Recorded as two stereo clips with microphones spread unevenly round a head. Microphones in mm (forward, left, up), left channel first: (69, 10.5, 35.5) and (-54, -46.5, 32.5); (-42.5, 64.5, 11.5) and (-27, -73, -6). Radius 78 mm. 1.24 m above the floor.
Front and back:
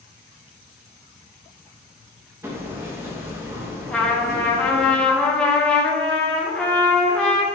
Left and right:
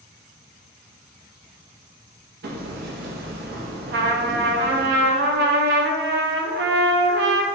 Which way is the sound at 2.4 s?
80° right.